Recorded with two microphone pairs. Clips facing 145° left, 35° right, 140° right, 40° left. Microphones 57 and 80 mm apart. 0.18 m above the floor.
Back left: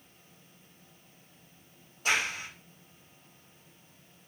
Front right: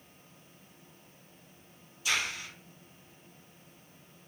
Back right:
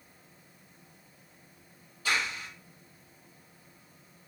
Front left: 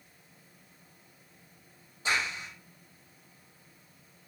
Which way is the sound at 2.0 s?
100° left.